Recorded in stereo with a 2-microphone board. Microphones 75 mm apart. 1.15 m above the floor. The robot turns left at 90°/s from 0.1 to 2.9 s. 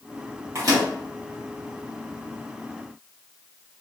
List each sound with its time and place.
0.6 s a microwave: 35° right (ahead or behind), 1.2 m; by 0.9 s 70° right (ahead or behind), 1.2 m